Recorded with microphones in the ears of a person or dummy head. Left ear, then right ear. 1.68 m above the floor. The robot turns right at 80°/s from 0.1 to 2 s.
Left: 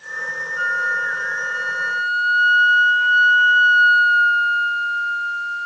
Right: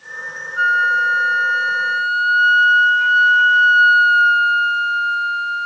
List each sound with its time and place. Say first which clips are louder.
0.6 s a flute: right 6 dB; 135° right; by 5.7 s 20° right